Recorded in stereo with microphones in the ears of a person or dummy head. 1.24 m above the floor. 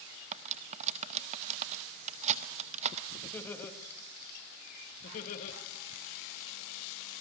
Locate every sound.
0.3 s cutlery clinking: 40° right (ahead or behind), 0.8 m
3.2 s laughter: 10° left (ahead or behind), 2.5 m
5.0 s laughter: 45° left (ahead or behind), 2.5 m